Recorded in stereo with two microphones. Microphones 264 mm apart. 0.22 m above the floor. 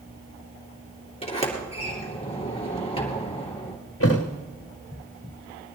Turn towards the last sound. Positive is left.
turn(degrees=55)  # may be behind; listen again after turning